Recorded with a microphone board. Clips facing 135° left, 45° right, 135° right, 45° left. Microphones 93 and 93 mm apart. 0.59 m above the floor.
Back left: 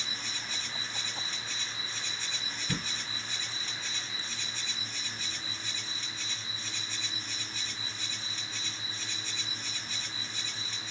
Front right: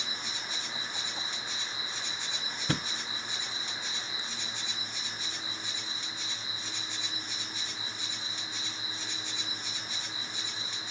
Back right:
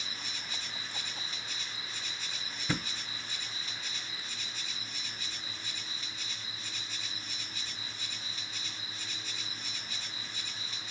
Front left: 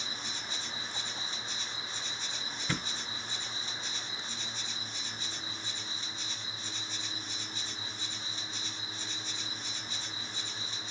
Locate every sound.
0.0 s an insect: 15° left, 0.9 m
2.7 s a thud: 60° right, 0.7 m